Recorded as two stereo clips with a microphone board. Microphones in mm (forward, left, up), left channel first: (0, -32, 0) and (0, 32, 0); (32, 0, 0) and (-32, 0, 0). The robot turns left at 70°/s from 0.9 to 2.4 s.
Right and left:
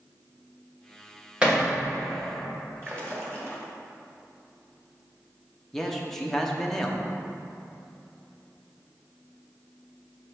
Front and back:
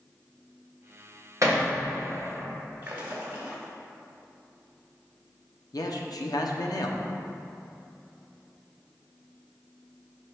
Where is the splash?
130° left, 2 m.